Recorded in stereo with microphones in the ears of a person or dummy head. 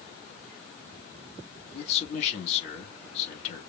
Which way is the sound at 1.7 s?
50° left (ahead or behind).